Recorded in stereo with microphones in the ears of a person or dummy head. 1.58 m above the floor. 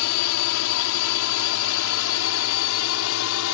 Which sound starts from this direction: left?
A drone, at 0.0 s.